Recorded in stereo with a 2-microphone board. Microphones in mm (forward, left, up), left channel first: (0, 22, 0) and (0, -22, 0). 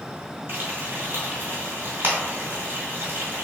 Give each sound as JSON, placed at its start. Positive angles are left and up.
{"t": 0.5, "sound": "frying", "side_deg": -55, "distance_m": 1.8}